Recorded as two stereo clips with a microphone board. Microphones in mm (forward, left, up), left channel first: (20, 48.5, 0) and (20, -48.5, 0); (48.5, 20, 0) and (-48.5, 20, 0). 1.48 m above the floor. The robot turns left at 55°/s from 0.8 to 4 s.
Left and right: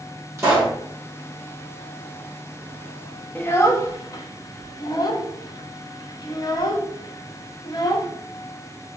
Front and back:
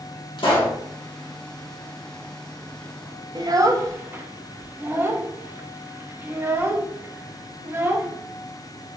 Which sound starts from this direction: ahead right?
A pop, at 0.4 s.